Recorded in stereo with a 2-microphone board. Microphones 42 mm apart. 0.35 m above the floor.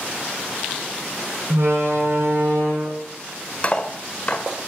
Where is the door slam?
75° right (ahead or behind), 2.5 m.